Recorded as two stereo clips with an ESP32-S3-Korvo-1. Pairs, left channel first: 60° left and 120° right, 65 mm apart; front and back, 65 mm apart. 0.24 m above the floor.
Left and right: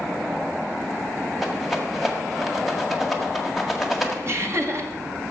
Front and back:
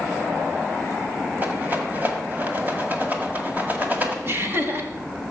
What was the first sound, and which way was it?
A rattle, 155° left.